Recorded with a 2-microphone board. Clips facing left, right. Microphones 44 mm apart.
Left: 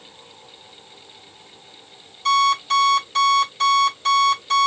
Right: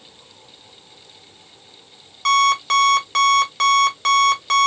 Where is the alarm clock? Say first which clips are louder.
Right 2 dB; 65° right (ahead or behind), 1.2 m.